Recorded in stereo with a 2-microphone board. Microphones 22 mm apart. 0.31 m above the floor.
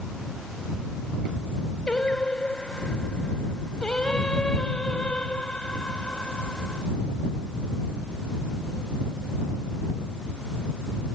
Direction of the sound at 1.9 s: 50° left (ahead or behind).